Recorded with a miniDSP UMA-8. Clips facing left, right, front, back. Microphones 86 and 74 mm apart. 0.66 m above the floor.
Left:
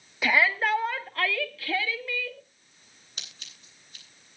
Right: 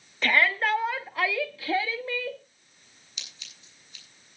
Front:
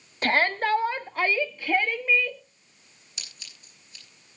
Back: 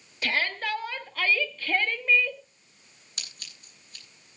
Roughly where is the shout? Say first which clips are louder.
Even, front 6 dB; ahead.